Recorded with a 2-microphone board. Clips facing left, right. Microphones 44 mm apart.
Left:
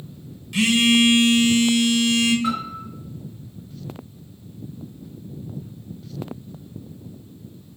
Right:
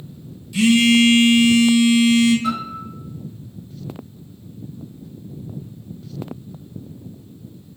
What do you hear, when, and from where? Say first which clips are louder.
0.5 s a phone buzzing: right 3 dB; 55° left (ahead or behind), 0.8 m
2.4 s a piano: right 1 dB; 35° left (ahead or behind), 2.0 m